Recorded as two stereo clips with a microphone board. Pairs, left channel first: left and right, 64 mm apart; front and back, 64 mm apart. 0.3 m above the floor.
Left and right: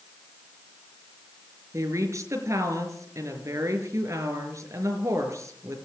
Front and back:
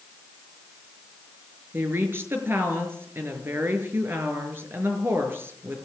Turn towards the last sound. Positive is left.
turn(degrees=-130)